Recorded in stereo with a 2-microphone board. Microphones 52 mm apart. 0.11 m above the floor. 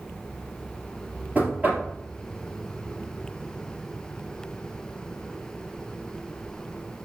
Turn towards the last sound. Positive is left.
turn(degrees=-30)  # may be behind; listen again after turning